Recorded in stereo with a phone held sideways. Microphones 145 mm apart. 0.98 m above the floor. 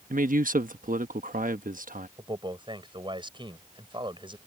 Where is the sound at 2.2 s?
35° right (ahead or behind).